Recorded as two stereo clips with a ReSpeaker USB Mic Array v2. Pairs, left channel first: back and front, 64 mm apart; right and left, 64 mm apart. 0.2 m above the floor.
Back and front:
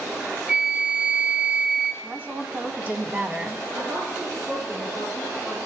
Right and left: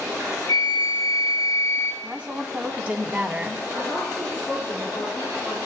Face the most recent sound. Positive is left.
turn(degrees=-15)